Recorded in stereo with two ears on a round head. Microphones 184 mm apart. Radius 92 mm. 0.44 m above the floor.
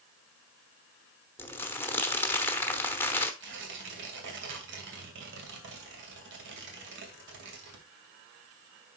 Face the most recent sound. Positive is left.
turn(degrees=-60)  # may be behind; listen again after turning